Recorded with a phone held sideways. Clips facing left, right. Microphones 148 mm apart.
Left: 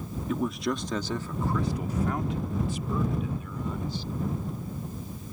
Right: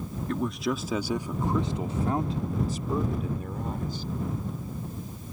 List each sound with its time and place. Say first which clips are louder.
0.3 s a man speaking: even; 5° left (ahead or behind); by 4.0 s 50° right (ahead or behind)